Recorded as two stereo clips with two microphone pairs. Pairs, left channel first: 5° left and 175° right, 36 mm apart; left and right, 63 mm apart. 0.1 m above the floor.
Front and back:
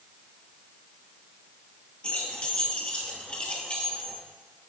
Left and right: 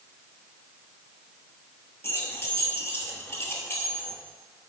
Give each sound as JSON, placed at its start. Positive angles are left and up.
{"t": 2.0, "sound": "keys jangling", "azimuth_deg": 50, "distance_m": 1.2}